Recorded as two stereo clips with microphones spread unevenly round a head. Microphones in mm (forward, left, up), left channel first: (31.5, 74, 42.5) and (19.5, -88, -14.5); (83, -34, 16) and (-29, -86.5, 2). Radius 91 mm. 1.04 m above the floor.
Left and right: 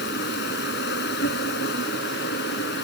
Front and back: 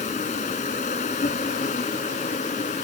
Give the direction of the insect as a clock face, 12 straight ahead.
9 o'clock.